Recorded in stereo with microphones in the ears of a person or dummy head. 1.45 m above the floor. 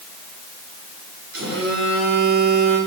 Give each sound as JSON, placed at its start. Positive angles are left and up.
{"t": 1.3, "sound": "a phone buzzing", "side_deg": -85, "distance_m": 6.0}